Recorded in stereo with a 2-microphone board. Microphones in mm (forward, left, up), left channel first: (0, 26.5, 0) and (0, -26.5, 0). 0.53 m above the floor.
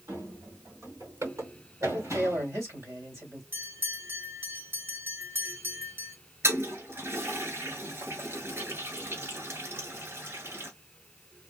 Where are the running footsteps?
85° right, 4 m; by 2.5 s 70° right (ahead or behind), 4 m.